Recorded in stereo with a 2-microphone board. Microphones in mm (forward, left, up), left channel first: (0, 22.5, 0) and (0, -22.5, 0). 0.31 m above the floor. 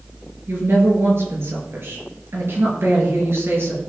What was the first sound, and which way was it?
A woman speaking, 60° right (ahead or behind).